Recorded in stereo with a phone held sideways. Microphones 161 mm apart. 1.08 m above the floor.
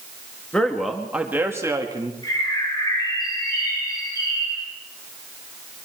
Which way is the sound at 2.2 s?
25° left (ahead or behind).